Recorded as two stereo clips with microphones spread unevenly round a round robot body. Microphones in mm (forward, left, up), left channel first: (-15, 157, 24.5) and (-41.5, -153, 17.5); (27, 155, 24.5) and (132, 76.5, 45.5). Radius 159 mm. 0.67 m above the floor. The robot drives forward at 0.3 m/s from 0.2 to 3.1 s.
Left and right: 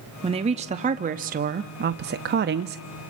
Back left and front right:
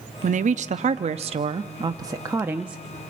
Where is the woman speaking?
25° right, 0.8 m; by 2.8 s 130° right, 0.6 m.